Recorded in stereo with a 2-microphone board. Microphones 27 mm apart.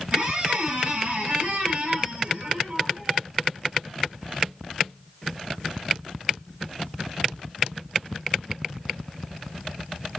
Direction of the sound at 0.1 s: 55° right (ahead or behind).